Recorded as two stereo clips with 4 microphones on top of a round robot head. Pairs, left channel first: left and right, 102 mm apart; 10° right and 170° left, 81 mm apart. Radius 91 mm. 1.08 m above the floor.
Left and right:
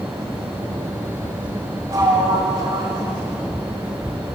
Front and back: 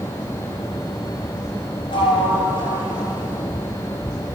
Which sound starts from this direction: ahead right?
A sliding door, at 1.9 s.